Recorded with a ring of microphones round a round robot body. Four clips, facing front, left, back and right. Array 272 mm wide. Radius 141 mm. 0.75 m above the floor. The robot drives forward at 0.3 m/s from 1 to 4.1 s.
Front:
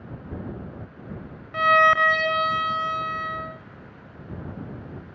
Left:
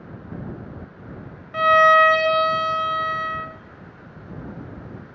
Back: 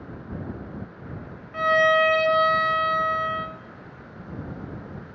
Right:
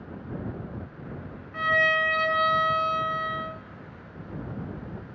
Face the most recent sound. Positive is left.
turn(degrees=140)